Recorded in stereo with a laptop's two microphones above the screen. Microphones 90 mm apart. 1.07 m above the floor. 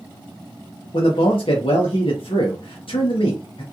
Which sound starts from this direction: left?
A man speaking, at 0.9 s.